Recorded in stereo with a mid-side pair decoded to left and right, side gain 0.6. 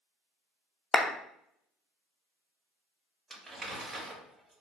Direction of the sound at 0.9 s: 20° left.